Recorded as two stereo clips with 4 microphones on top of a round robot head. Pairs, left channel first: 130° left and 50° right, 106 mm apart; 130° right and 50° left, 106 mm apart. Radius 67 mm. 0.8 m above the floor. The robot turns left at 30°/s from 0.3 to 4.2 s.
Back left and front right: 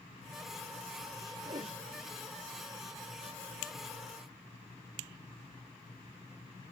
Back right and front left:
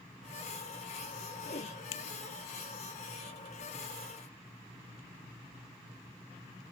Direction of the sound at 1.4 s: 100° right.